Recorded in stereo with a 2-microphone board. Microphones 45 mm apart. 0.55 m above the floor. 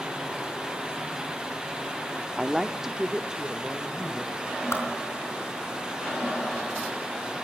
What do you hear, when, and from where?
2.4 s a woman speaking: 5° right (ahead or behind), 0.7 m; by 4.6 s 20° right (ahead or behind), 2.5 m
4.7 s a whoosh: 85° left, 4.5 m